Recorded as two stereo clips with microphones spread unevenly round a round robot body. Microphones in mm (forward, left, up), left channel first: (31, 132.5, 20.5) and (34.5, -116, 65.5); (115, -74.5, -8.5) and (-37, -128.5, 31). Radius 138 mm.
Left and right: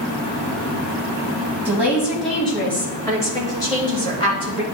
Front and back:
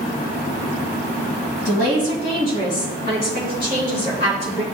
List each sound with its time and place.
1.6 s a woman speaking: straight ahead, 2 m; by 4.6 s 25° left, 3.5 m